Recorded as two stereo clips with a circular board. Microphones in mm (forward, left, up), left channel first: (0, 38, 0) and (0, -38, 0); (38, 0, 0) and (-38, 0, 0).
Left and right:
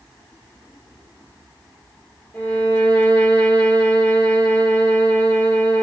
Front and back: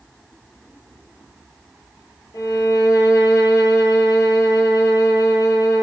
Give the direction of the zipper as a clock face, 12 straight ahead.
I don't hear a zipper.